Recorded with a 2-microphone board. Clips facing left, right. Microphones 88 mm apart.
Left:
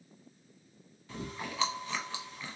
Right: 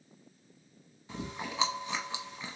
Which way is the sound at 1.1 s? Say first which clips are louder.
Right 1 dB; 20° right (ahead or behind).